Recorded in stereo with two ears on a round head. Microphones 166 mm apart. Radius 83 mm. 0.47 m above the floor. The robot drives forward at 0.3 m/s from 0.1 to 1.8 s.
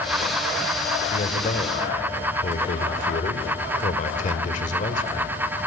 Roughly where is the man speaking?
Left.